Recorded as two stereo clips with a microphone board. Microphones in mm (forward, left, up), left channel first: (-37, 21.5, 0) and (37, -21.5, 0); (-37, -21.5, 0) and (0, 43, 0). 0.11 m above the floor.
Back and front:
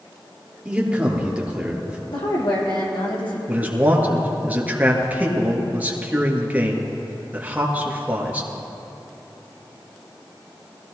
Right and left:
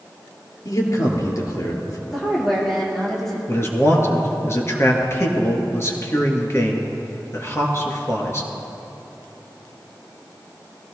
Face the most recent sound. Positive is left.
turn(degrees=-90)